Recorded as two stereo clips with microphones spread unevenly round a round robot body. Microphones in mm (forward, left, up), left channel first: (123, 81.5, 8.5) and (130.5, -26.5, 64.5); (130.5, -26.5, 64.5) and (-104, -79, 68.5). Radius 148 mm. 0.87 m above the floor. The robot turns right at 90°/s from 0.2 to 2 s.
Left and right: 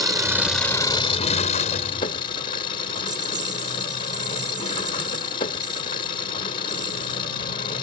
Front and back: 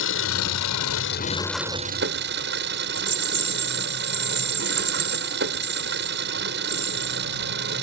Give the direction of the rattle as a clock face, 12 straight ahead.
4 o'clock.